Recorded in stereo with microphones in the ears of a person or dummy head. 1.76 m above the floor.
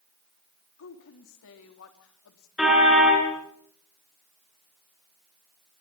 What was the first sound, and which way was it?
A woman speaking, 70° left (ahead or behind).